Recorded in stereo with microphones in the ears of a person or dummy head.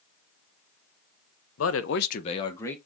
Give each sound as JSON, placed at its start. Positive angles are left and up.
{"t": 1.6, "sound": "a man speaking", "side_deg": 80, "distance_m": 1.0}